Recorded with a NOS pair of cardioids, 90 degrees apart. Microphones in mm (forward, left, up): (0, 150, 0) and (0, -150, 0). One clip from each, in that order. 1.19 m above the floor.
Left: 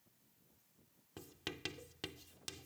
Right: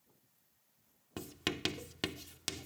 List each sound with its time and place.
1.2 s writing: 60° right